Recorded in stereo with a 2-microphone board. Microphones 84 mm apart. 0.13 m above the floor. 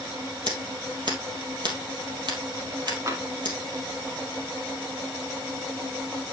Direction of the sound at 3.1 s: 35° right (ahead or behind).